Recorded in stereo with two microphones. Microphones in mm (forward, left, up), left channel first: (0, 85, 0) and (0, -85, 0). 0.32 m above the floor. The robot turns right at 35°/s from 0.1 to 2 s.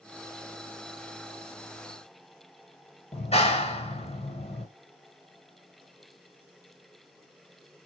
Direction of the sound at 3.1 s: 40° left (ahead or behind).